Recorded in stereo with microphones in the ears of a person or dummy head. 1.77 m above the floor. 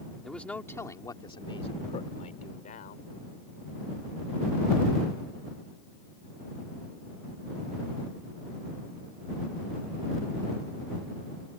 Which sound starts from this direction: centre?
A man speaking, at 0.2 s.